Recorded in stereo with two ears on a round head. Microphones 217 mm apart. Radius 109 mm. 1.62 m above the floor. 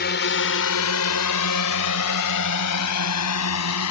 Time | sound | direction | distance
0.0 | a drone | 45° left (ahead or behind) | ?